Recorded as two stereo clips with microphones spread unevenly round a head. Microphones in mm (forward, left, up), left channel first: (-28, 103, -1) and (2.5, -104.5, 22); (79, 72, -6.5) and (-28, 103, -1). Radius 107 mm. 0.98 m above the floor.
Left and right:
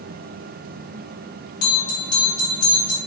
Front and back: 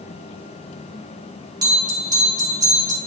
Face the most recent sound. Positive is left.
turn(degrees=110)